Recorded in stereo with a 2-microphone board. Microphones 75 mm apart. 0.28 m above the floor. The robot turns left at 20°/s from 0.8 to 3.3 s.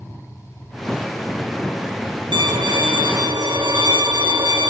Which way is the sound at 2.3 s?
80° right.